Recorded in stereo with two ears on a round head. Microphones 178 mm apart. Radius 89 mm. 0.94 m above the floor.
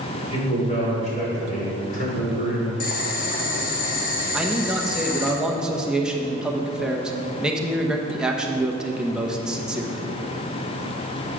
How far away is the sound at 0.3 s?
About 3.5 m.